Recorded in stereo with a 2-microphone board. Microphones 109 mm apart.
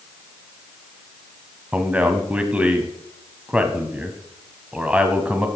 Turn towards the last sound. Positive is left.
turn(degrees=-10)  # may be behind; listen again after turning